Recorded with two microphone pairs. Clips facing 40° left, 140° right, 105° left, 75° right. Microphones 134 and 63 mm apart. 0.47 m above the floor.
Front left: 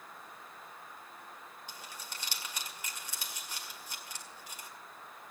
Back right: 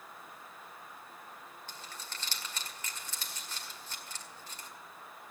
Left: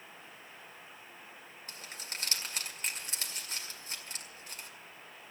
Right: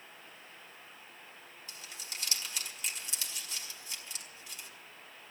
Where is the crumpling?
110° left, 1.9 m.